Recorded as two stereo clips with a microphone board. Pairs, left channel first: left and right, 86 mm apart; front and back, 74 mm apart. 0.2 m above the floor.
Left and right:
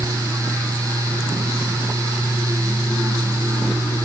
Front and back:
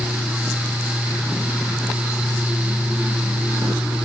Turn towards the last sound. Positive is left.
No sound to turn to.